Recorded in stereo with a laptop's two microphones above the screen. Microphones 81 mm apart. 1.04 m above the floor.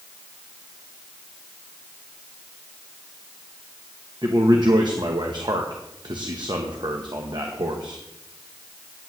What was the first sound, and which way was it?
A man speaking, 65° right (ahead or behind).